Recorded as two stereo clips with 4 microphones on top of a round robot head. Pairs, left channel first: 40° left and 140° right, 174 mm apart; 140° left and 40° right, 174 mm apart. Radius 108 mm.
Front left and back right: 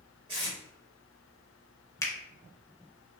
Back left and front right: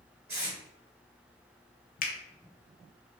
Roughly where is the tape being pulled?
Right.